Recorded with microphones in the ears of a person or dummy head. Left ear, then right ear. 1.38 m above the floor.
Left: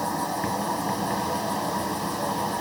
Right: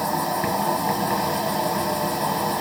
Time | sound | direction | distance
0.0 | an insect | 5° right (ahead or behind) | 3.5 m